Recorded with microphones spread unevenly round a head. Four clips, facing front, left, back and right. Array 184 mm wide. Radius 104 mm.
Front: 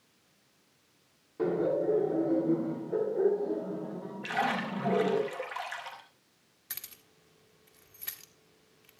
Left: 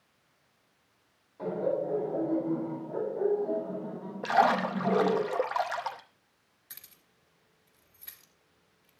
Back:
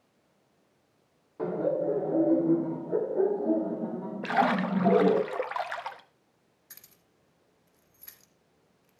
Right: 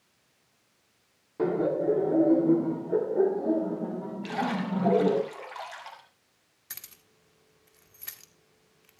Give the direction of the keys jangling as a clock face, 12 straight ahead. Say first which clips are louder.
Right 6 dB, front 8 dB; 1 o'clock.